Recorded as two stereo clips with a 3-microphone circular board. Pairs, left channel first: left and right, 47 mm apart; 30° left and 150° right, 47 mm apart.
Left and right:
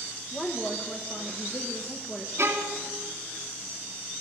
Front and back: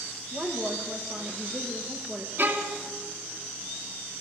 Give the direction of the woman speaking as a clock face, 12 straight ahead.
7 o'clock.